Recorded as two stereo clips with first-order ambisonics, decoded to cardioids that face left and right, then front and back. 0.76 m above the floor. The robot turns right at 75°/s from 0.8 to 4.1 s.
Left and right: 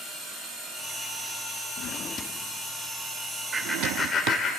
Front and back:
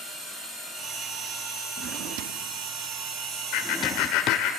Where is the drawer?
130° left, 0.6 m; by 4.4 s 55° right, 0.6 m.